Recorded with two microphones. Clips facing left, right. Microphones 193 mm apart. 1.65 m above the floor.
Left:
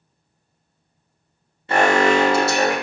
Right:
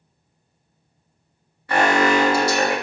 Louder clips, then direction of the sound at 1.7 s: Left 2 dB; 25° left (ahead or behind).